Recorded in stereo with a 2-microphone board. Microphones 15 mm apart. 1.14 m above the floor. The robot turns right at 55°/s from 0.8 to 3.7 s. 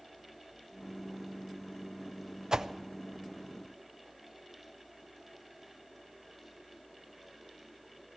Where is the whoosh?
45° right (ahead or behind), 0.6 m; by 2.7 s 50° right (ahead or behind), 0.6 m.